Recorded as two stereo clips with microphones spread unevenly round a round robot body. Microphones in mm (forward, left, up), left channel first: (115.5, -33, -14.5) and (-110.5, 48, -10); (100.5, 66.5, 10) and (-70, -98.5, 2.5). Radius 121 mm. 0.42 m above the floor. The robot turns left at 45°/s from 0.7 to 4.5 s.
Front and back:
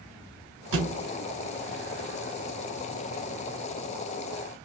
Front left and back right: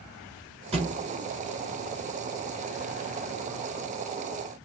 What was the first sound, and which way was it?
A thud, 155° left.